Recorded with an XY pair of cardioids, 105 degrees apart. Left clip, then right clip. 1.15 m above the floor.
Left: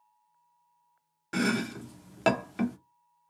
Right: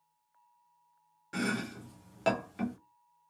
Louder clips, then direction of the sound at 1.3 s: Left 5 dB; 50° left.